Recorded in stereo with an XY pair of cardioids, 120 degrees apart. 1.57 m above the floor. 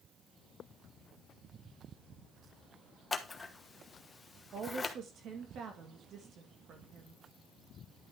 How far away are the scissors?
About 1.2 m.